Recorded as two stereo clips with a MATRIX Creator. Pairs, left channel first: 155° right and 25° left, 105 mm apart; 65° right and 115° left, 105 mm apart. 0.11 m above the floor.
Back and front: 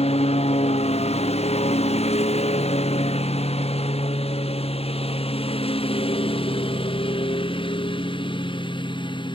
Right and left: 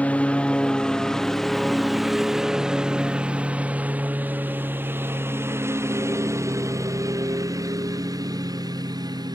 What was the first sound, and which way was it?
A lawn mower, 145° right.